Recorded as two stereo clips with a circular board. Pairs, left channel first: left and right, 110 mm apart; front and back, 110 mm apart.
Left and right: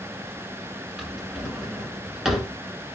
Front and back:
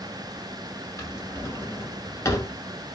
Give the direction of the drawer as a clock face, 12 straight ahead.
12 o'clock.